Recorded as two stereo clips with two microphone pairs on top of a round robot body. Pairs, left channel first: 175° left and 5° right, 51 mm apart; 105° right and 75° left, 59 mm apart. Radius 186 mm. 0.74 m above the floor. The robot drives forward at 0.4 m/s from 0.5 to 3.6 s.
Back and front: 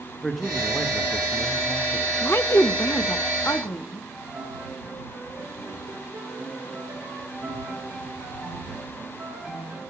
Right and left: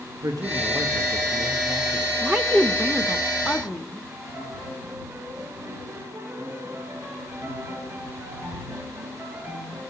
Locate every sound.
0.2 s a man speaking: 90° left, 1.2 m; by 2.1 s 120° left, 1.3 m
2.2 s a woman speaking: 145° left, 0.6 m; by 4.0 s 165° left, 1.0 m
4.1 s a piano: 65° left, 7.5 m